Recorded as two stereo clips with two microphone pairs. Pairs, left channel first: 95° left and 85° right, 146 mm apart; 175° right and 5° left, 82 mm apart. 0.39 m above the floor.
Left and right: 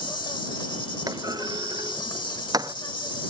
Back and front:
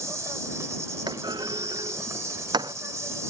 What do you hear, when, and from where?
0.0 s an insect: 45° left
1.1 s a clunk: 25° right